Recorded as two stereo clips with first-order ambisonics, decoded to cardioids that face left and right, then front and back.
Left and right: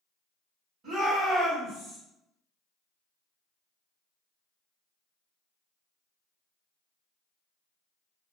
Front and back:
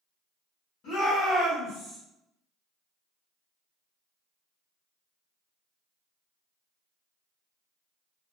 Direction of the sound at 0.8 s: 40° right.